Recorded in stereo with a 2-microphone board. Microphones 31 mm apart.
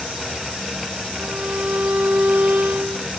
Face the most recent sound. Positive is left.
turn(degrees=-65)  # may be behind; listen again after turning